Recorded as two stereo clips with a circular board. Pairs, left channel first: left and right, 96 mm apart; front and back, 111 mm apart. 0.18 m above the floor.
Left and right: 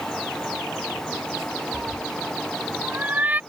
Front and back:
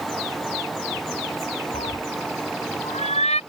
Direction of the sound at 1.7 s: 15° right.